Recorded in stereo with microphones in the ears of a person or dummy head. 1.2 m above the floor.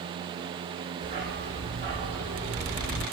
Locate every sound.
1.0 s a dog barking: 50° right (ahead or behind), 1.1 m; by 3.0 s 5° right (ahead or behind), 0.8 m